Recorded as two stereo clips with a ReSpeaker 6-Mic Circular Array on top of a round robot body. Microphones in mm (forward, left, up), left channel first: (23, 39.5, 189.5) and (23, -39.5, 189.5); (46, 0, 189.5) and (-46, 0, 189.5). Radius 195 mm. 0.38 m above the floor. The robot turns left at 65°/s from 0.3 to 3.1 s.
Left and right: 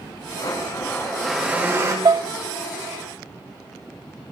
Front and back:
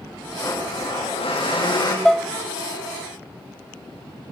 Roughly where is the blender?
Ahead left.